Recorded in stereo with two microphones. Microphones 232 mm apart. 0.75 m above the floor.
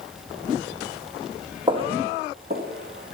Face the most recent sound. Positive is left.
turn(degrees=-50)  # may be behind; listen again after turning